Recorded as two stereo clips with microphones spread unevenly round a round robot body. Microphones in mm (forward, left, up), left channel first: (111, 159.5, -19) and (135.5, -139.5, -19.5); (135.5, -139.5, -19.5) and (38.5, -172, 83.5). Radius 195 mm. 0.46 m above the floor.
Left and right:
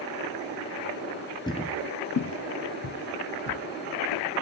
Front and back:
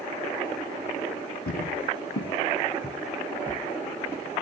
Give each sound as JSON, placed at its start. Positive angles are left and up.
{"t": 1.5, "sound": "footsteps", "azimuth_deg": 20, "distance_m": 0.5}